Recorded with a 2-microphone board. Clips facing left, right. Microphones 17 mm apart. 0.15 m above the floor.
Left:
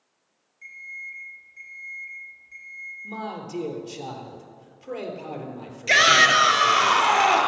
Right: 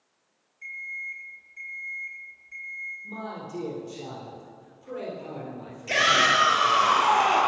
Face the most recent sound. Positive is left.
turn(degrees=55)  # may be behind; listen again after turning